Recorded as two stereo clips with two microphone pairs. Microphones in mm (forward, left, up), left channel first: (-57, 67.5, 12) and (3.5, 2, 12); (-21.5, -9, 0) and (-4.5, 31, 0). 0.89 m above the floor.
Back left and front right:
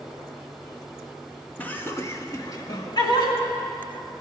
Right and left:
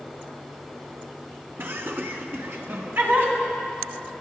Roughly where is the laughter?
Ahead left.